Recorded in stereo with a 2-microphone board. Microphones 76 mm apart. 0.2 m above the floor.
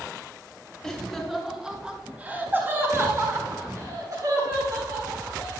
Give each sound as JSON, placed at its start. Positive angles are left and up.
{"t": 0.8, "sound": "laughter", "side_deg": 10, "distance_m": 1.8}